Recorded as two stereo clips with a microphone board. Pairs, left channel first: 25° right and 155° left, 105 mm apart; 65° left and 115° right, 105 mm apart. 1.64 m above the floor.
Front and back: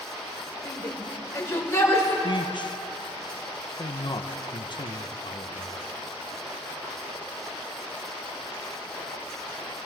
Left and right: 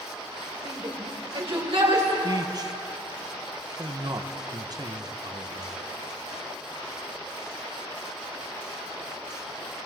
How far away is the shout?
About 5 m.